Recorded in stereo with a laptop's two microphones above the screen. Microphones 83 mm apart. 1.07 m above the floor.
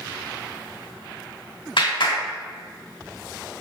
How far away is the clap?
About 2 m.